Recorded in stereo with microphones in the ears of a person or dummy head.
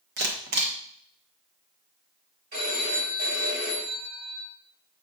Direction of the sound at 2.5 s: 50° right (ahead or behind).